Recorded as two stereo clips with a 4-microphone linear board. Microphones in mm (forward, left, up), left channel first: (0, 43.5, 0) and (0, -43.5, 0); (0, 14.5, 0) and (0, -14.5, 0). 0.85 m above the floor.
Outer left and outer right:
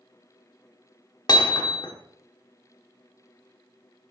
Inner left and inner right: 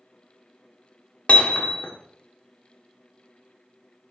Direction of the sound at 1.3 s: 55° left (ahead or behind).